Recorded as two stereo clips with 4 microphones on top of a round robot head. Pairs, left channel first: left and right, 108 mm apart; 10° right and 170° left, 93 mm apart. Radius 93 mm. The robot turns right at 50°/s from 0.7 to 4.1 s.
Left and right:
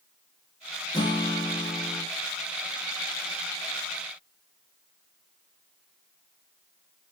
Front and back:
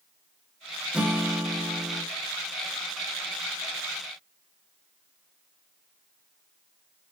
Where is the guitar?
95° left, 1.1 m; by 2.0 s 150° left, 1.1 m.